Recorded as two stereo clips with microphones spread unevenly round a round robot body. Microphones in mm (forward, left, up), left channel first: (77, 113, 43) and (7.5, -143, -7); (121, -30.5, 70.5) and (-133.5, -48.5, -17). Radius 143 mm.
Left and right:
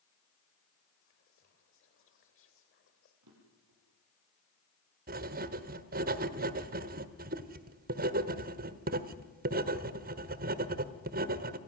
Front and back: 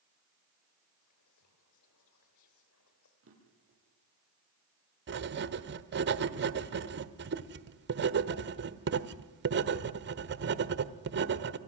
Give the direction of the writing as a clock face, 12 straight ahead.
5 o'clock.